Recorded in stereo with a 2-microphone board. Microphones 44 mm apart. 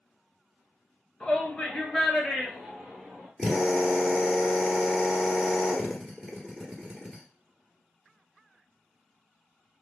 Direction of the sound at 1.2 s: 20° left (ahead or behind).